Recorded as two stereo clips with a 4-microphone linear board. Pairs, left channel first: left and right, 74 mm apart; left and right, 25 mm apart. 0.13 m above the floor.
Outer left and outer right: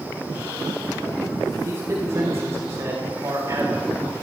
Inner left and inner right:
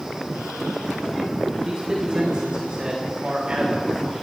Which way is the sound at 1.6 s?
45° right (ahead or behind).